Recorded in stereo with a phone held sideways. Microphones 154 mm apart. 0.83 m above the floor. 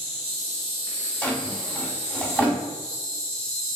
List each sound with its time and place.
0.0 s an insect: 55° left (ahead or behind), 1.6 m
1.2 s a drawer: 5° left (ahead or behind), 1.1 m